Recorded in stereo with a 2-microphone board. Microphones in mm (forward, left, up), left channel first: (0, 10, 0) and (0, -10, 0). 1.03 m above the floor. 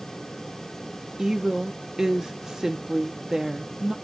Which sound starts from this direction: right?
A woman speaking, at 1.2 s.